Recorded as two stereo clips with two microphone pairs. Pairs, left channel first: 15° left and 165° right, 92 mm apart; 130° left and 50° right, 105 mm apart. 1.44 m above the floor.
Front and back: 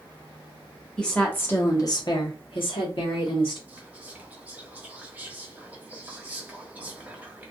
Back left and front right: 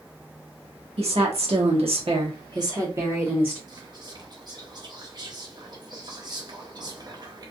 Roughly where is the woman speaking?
Right.